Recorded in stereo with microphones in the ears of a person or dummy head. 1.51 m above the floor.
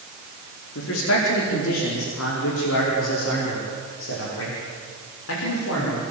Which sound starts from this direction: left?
A man speaking, at 0.8 s.